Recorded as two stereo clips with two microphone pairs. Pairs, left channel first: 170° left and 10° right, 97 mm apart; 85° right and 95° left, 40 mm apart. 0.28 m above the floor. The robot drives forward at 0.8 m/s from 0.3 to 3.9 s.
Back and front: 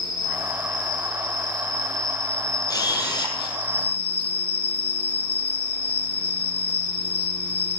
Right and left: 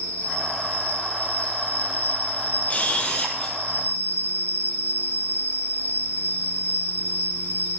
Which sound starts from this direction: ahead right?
An insect, at 0.0 s.